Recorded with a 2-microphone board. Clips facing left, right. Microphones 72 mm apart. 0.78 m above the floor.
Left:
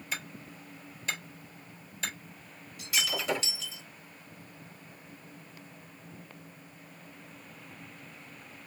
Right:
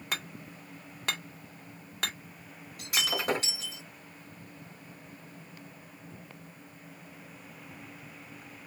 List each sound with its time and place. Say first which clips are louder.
0.1 s hammering: right 1 dB; 65° right (ahead or behind), 1.6 m
2.8 s breaking glass: right 1 dB; 50° right (ahead or behind), 3 m